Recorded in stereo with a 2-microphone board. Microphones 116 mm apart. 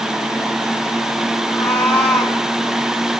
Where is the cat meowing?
10° left (ahead or behind), 2.5 m.